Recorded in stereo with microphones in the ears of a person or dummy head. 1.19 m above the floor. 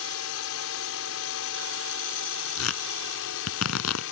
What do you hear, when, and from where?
0.0 s a drone: 65° left (ahead or behind); by 4.1 s 60° left (ahead or behind)
2.6 s tearing paper: 90° left